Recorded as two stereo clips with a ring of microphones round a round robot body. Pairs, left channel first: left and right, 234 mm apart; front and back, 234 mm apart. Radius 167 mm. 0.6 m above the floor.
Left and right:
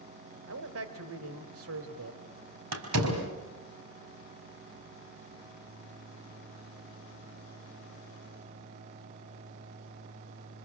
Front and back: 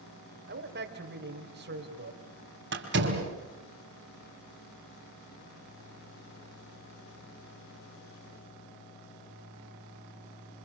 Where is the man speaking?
125° right, 2.5 m.